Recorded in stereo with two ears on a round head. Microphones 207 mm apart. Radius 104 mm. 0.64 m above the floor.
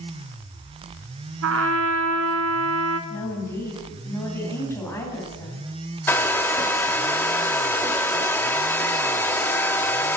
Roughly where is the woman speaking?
Centre.